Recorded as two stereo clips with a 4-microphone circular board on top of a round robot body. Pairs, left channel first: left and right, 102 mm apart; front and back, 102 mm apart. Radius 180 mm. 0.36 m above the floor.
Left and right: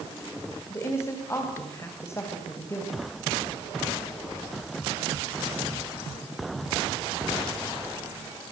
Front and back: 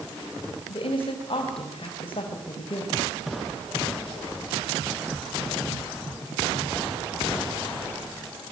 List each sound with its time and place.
0.7 s a woman speaking: 30° left, 3.5 m